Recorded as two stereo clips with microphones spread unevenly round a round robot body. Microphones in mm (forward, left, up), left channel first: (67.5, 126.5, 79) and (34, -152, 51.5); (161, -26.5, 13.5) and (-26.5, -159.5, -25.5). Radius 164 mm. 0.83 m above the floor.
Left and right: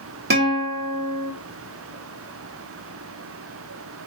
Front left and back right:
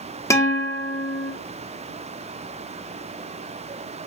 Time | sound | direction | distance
0.3 | a guitar | 40° right | 0.8 m